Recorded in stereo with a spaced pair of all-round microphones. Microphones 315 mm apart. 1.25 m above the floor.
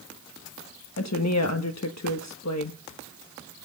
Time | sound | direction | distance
1.0 | a woman speaking | 60° left (ahead or behind) | 1.3 m